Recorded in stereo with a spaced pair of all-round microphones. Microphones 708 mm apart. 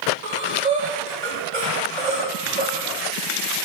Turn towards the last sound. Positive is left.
turn(degrees=-80)